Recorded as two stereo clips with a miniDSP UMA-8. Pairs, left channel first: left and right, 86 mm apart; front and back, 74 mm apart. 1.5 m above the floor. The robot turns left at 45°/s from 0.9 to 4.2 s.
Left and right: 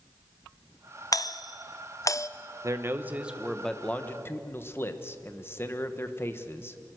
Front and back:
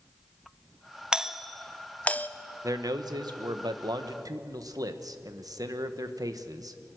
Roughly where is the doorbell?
Left.